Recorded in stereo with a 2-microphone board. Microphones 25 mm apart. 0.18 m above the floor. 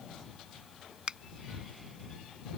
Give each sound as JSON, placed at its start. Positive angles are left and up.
{"t": 1.1, "sound": "a finger snap", "side_deg": -40}